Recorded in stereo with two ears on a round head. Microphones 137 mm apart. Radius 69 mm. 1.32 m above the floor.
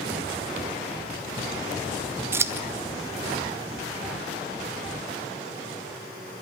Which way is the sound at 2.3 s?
15° right (ahead or behind).